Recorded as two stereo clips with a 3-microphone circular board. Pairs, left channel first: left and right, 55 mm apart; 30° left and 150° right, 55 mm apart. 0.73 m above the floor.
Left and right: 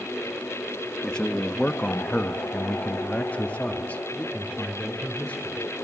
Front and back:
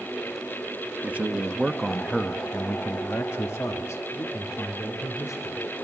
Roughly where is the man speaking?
Behind.